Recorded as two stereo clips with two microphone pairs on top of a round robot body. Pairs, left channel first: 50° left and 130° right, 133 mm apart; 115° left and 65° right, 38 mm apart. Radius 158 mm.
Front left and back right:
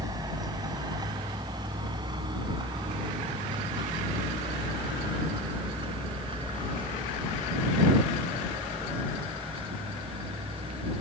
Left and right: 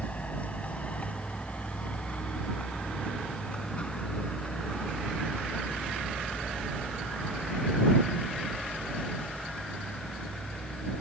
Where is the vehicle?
170° left; by 11.0 s straight behind.